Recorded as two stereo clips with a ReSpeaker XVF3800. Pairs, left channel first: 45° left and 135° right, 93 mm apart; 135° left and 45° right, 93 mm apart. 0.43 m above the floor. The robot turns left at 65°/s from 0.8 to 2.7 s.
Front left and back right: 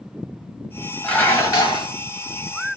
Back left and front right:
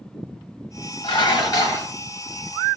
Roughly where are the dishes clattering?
Behind left.